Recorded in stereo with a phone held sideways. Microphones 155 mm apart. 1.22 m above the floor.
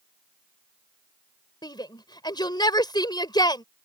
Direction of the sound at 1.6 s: 25° left (ahead or behind).